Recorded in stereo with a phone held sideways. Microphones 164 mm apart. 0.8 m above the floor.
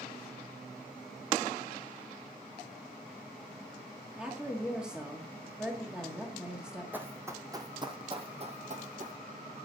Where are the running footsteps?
10° right (ahead or behind), 1.6 m; by 9.2 s 55° right (ahead or behind), 1.5 m.